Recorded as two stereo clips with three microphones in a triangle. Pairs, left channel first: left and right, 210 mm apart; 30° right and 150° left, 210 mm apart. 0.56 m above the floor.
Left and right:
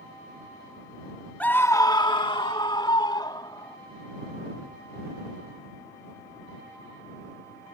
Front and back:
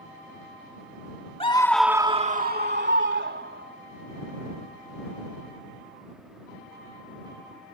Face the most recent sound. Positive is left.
turn(degrees=160)